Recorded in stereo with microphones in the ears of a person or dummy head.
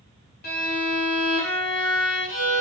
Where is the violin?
60° left (ahead or behind), 4 m.